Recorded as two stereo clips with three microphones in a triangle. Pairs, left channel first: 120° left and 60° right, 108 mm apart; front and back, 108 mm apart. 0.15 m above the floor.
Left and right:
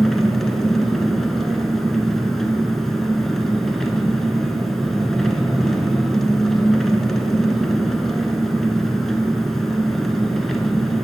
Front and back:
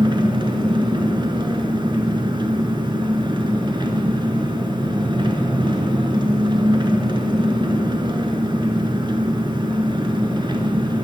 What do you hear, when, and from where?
0.0 s an engine running: 155° right, 0.7 m